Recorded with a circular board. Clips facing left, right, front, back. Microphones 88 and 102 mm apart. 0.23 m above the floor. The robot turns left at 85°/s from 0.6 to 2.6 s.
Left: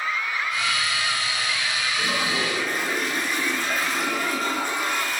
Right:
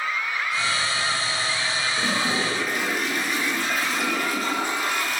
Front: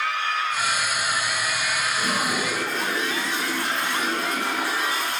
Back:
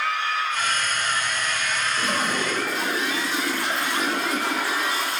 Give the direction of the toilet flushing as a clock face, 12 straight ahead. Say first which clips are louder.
Right 1 dB, even; 4 o'clock.